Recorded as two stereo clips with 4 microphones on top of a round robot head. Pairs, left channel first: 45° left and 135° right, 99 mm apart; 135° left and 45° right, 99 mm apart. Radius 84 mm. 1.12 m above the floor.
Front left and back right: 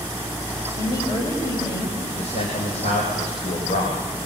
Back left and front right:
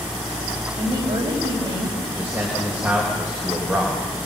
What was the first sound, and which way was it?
A woman speaking, 10° right.